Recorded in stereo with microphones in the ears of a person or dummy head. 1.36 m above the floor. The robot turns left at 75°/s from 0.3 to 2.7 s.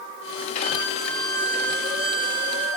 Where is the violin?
10° left, 6.5 m; by 2.8 s 155° right, 6.5 m.